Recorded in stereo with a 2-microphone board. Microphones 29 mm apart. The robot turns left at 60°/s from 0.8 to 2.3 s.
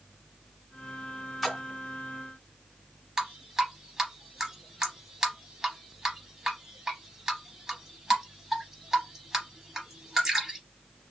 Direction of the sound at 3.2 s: 20° right (ahead or behind).